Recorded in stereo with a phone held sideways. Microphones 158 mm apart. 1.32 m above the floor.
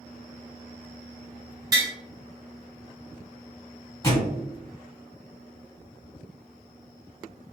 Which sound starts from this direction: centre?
A thud, at 4.0 s.